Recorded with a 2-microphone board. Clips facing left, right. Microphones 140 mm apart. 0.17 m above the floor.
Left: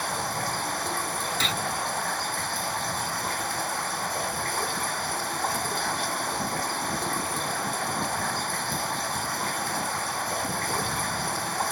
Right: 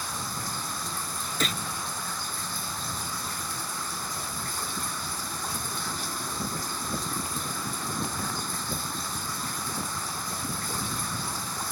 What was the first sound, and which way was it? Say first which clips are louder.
Running water: left 6 dB; 75° left (ahead or behind).